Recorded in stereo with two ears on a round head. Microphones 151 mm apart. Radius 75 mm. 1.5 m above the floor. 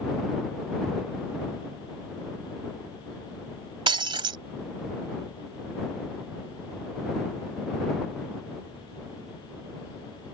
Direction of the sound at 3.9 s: 30° right (ahead or behind).